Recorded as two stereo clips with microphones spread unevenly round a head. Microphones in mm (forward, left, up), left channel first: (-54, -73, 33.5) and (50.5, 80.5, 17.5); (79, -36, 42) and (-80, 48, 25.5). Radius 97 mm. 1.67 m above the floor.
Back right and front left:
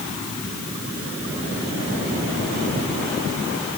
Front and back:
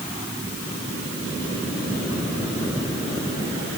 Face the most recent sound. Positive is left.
No sound to turn to.